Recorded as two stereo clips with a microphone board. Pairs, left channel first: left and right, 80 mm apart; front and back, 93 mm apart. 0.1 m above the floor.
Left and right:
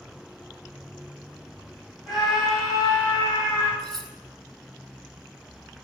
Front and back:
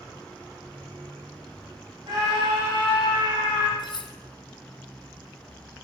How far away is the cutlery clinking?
About 2.0 m.